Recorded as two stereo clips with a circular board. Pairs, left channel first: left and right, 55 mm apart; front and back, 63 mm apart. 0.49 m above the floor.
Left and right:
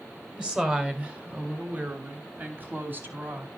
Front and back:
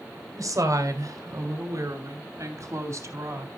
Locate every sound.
0.4 s a woman speaking: 165° right, 2.5 m; by 3.5 s 140° right, 4 m